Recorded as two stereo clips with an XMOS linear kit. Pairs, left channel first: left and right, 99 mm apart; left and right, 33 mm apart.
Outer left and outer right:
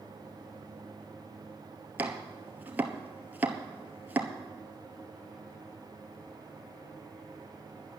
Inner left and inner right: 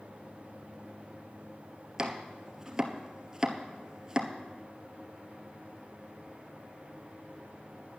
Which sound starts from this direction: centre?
Chopping, at 2.0 s.